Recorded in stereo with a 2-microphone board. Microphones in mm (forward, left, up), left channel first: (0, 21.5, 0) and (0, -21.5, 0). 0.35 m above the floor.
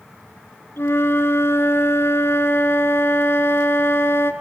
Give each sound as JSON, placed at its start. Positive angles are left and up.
{"t": 0.8, "sound": "a flute", "side_deg": 65, "distance_m": 3.5}